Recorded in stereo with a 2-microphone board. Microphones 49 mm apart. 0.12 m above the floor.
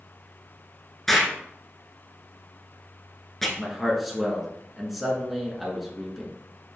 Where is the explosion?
10° left (ahead or behind), 0.9 m.